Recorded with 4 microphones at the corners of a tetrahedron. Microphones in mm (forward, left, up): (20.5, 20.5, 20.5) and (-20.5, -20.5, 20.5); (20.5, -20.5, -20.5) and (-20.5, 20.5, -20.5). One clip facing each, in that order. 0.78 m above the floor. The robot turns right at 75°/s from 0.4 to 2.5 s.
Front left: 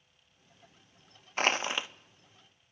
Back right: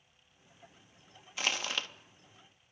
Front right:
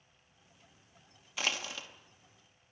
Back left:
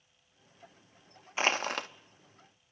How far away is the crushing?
About 0.6 m.